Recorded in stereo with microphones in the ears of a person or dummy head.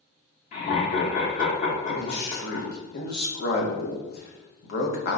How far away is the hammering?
No hammering in this recording.